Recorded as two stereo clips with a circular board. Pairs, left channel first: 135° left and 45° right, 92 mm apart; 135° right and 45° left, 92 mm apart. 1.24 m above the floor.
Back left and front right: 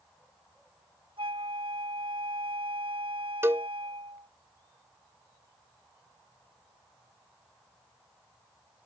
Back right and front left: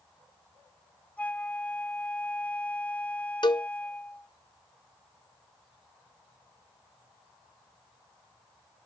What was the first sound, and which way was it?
A flute, 60° right.